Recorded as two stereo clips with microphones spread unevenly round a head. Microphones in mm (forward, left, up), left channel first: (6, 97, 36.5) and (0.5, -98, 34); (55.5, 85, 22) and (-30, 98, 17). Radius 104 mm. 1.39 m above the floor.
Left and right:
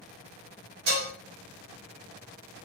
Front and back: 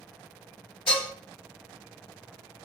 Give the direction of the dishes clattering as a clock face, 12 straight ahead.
2 o'clock.